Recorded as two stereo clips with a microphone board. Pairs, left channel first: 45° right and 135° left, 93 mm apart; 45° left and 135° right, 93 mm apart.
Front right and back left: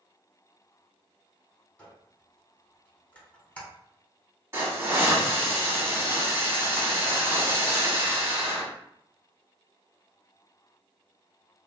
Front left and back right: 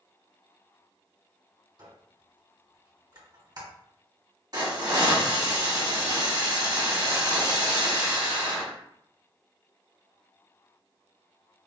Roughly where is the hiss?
Behind.